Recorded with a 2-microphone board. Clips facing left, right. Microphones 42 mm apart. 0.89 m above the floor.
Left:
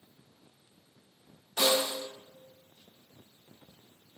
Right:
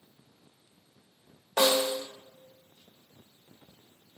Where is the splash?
I don't hear a splash.